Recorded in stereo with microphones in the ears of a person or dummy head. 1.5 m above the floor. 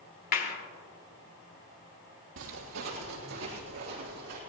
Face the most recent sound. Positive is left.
turn(degrees=-45)  # may be behind; listen again after turning